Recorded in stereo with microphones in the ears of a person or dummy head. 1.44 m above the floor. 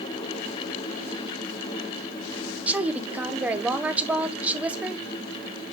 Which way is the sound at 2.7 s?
10° right (ahead or behind).